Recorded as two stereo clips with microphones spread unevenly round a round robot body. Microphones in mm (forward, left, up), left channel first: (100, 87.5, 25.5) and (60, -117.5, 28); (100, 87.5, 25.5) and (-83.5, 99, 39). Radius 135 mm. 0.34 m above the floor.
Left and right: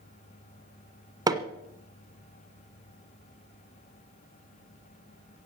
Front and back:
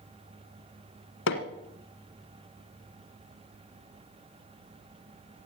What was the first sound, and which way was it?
Hammering, 30° right.